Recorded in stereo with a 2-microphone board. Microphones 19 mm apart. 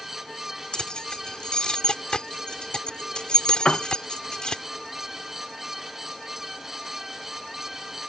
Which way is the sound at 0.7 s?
55° left (ahead or behind).